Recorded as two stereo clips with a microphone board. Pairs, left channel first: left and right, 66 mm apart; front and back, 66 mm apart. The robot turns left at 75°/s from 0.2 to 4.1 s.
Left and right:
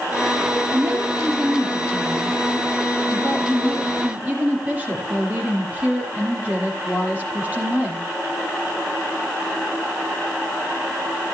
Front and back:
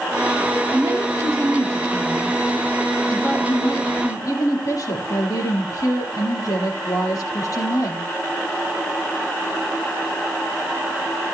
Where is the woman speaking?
130° right, 5.5 m; by 8.0 s 25° right, 5.5 m.